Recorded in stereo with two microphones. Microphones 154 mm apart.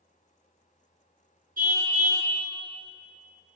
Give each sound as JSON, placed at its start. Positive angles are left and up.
{"t": 1.6, "sound": "a car horn", "side_deg": -65, "distance_m": 5.5}